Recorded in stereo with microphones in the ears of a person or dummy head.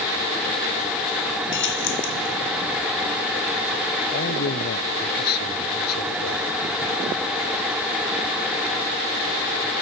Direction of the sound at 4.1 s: 55° left (ahead or behind).